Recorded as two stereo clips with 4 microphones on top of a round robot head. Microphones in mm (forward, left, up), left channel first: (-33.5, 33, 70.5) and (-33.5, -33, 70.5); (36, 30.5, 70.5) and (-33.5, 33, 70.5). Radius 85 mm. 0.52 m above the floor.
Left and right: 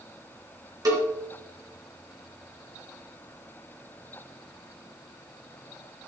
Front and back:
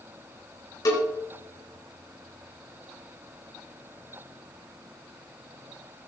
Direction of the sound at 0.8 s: 45° right.